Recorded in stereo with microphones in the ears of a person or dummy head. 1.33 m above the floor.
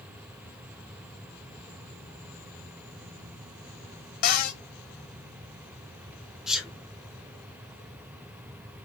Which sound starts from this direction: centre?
A sneeze, at 6.5 s.